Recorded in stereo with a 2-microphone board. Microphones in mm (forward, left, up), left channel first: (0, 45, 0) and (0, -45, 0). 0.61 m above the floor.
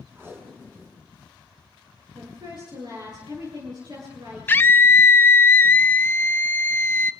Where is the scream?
20° left (ahead or behind), 0.7 m.